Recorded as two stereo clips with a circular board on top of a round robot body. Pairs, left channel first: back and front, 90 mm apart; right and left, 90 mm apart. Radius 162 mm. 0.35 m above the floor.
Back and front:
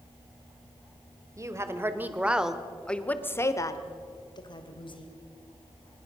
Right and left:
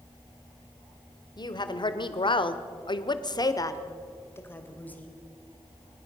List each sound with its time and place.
1.4 s a woman speaking: 55° right, 2.0 m; by 5.1 s 165° right, 2.5 m